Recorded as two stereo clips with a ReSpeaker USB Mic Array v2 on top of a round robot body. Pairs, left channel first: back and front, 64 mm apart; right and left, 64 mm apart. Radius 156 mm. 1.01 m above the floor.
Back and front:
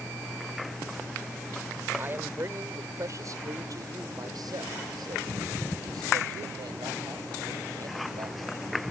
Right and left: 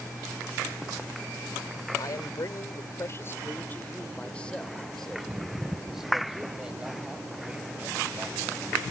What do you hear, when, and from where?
2.0 s a man speaking: 60° right; by 8.5 s 20° left